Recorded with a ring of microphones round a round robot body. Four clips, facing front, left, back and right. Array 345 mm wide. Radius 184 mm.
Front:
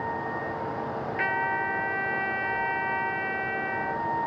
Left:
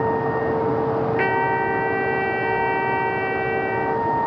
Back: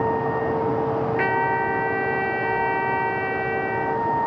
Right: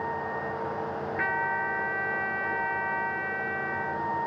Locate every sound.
0.0 s a vehicle: 125° left; by 4.3 s 120° left
1.2 s a trumpet: 115° left